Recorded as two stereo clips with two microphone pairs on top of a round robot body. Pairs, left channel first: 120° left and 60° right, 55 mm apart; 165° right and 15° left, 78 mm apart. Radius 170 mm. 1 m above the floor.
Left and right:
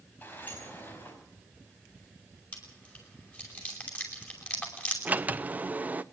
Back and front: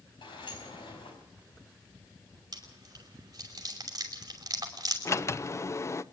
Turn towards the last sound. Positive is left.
turn(degrees=-115)